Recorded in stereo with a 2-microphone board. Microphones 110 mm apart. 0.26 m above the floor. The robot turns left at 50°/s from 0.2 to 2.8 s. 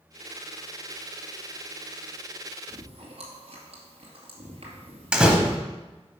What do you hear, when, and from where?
2.7 s chewing: 55° right (ahead or behind), 2 m; by 5.6 s 60° right (ahead or behind), 2 m
5.1 s a door slam: 10° right (ahead or behind), 1.1 m